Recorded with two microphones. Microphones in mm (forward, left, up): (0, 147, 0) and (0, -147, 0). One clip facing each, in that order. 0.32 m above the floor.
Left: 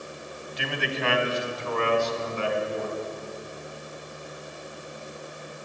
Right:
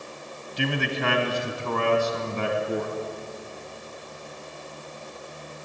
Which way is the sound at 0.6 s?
45° right (ahead or behind).